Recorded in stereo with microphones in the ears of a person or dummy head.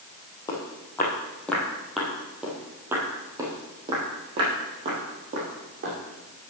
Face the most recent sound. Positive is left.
turn(degrees=-40)  # may be behind; listen again after turning